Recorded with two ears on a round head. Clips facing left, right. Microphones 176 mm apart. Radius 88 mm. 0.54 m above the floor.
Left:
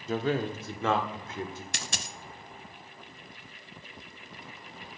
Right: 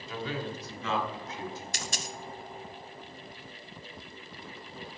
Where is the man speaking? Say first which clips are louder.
Left 7 dB; 40° left (ahead or behind), 0.9 m; by 1.6 s 45° left (ahead or behind), 1.7 m.